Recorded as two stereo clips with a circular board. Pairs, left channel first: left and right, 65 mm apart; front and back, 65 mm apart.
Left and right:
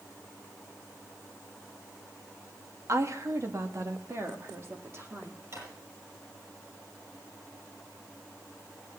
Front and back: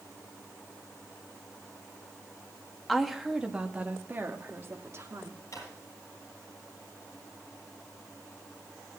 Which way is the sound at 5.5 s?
45° right.